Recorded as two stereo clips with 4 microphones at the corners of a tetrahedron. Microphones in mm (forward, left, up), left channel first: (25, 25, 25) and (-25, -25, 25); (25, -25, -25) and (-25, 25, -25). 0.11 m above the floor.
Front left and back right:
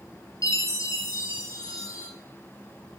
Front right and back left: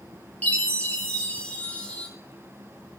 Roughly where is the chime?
Ahead left.